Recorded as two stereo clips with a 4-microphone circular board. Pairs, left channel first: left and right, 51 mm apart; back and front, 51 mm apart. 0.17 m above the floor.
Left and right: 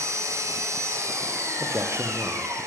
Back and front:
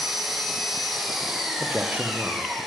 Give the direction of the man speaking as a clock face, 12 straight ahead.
2 o'clock.